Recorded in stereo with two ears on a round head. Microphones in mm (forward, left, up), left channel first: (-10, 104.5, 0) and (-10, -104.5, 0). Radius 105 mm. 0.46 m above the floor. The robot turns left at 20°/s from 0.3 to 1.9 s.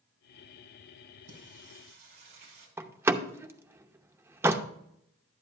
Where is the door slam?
10° right (ahead or behind), 0.6 m.